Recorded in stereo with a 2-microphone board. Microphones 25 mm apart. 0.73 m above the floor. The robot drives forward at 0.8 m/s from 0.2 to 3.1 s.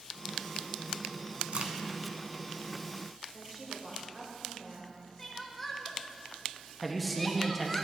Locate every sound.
1.5 s a crack: 50° right (ahead or behind), 1.0 m
3.3 s a woman speaking: 25° right (ahead or behind), 2.5 m
5.2 s crying: 5° left (ahead or behind), 0.8 m
6.8 s a man speaking: centre (ahead or behind), 0.7 m